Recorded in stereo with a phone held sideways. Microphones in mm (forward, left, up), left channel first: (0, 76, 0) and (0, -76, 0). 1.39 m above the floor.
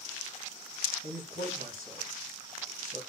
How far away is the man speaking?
About 1.9 m.